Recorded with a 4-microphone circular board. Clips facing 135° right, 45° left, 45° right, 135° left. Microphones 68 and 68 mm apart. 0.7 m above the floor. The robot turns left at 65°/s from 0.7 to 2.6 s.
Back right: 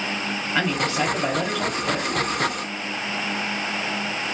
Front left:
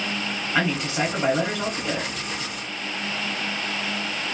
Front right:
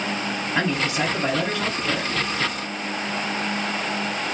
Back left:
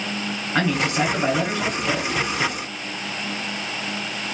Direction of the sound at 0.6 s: 125° left.